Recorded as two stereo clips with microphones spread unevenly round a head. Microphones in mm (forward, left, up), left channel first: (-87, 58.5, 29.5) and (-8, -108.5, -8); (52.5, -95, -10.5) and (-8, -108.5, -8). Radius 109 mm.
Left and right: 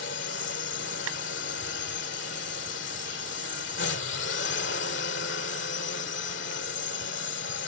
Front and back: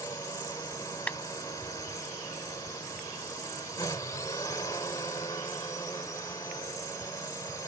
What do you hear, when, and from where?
0.0 s a drone: 75° left
1.1 s a clap: 50° right